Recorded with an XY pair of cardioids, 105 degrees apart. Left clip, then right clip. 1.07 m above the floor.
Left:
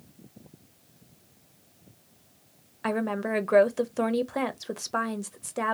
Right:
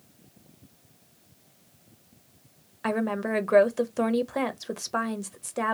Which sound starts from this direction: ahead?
A woman speaking, at 2.8 s.